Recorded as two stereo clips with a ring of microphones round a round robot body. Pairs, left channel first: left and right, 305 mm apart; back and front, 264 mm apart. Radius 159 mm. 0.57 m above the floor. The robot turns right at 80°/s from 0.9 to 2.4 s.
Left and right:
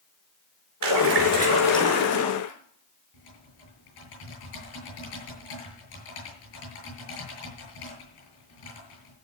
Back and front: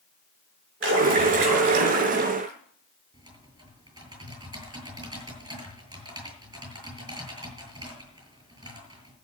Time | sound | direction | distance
0.8 | a splash | 55° right | 5 m
3.1 | typing on a keyboard | 75° left | 8 m